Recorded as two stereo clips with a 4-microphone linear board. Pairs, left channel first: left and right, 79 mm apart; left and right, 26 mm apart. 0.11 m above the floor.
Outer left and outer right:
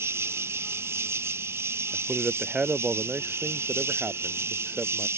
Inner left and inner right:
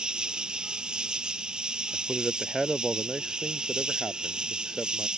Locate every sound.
0.0 s an insect: 35° right (ahead or behind)
1.9 s a man speaking: 15° right (ahead or behind)